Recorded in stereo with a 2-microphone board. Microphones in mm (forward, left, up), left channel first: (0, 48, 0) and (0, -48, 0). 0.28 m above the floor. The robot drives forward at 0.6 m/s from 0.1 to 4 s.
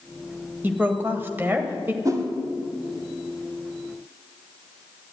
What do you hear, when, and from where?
0.6 s a woman speaking: 20° right (ahead or behind), 1.4 m
2.0 s a whoosh: 35° right (ahead or behind), 1.7 m; by 2.2 s 40° right (ahead or behind), 1.6 m